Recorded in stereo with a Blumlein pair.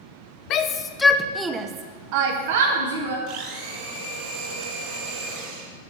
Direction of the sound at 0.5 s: 35° left.